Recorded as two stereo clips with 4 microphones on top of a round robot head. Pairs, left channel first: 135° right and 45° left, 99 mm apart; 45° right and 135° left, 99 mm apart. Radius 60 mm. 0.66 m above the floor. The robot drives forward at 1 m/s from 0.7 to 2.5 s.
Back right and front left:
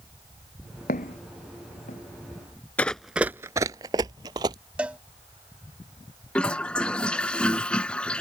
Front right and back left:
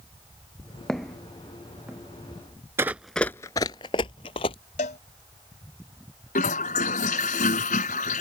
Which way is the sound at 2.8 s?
165° left.